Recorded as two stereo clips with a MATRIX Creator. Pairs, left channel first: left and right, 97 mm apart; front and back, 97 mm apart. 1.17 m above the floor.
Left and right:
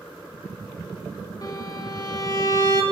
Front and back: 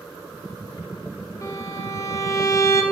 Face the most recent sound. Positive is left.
turn(degrees=50)